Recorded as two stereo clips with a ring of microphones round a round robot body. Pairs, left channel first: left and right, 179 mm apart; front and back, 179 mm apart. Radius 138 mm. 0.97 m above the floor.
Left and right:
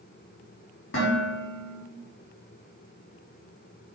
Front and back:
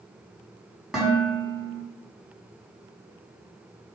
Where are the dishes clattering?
95° left, 5 m.